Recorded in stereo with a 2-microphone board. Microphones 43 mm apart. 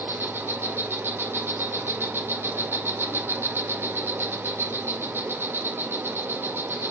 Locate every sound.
0.0 s an insect: 65° right (ahead or behind), 2.0 m